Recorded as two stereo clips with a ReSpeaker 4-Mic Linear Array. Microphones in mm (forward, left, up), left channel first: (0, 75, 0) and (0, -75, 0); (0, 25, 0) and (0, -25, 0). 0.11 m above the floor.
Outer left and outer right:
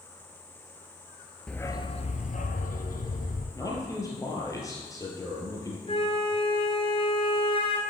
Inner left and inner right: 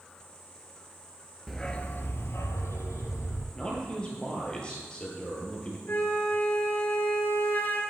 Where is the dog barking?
5° left (ahead or behind), 0.5 m; by 3.5 s 70° left (ahead or behind), 1.4 m.